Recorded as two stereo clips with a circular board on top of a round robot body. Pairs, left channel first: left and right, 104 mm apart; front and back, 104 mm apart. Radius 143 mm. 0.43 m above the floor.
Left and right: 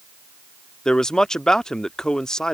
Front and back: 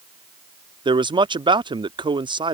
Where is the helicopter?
No helicopter in this recording.